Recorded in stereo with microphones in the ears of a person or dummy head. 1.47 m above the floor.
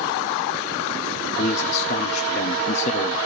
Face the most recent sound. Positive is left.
turn(degrees=45)  # may be behind; listen again after turning